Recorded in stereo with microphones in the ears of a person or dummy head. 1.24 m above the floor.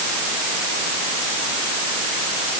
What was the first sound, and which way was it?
Only background noise.